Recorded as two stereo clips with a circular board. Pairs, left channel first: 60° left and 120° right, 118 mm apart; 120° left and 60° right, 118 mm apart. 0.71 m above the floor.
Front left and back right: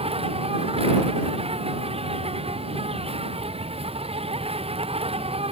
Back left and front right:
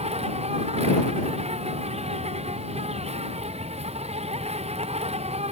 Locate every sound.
0.0 s an insect: 85° right